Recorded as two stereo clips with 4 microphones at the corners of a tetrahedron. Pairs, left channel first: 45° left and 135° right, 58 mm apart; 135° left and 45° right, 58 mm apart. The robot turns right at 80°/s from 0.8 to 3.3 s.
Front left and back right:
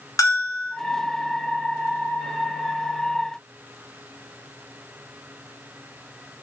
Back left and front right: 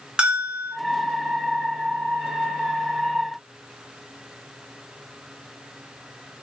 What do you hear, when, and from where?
0.2 s a bell: 30° left, 0.8 m